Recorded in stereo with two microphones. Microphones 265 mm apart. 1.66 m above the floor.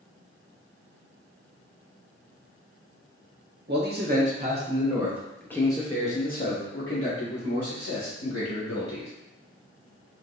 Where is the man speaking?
40° right (ahead or behind), 1.3 m; by 9.1 s 70° left (ahead or behind), 2 m.